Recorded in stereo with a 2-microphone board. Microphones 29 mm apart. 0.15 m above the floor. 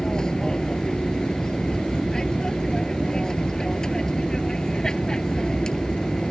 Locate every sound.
0.0 s an aircraft: 25° left (ahead or behind)